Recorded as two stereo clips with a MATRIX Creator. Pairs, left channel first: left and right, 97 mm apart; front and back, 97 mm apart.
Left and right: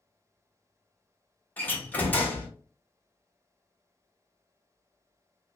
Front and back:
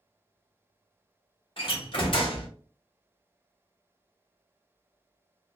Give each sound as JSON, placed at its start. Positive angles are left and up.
{"t": 1.6, "sound": "a door slam", "azimuth_deg": 20, "distance_m": 1.4}